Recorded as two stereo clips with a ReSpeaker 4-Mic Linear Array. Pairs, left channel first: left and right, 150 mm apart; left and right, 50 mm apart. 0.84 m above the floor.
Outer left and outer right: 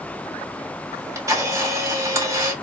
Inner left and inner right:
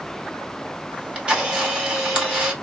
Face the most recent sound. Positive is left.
turn(degrees=-20)  # may be behind; listen again after turning